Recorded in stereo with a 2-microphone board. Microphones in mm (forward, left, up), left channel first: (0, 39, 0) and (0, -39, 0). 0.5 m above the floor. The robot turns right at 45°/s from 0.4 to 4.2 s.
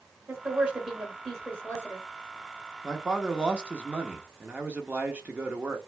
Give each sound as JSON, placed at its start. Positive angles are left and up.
{"t": 0.3, "sound": "a woman speaking", "azimuth_deg": -35, "distance_m": 1.8}
{"t": 2.8, "sound": "a man speaking", "side_deg": -5, "distance_m": 0.8}